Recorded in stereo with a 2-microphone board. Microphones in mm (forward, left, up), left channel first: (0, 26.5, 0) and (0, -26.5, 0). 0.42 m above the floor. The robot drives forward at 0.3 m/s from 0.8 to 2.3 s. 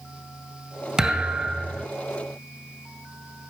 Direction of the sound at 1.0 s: 10° right (ahead or behind).